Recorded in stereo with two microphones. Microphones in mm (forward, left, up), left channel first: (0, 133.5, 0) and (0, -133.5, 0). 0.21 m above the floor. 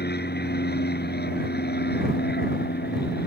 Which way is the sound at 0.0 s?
35° left (ahead or behind).